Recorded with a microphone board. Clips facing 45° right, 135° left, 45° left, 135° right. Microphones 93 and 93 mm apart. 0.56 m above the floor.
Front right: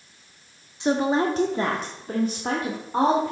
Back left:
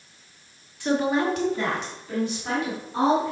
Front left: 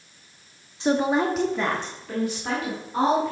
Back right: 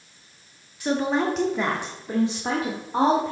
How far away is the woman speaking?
About 0.9 m.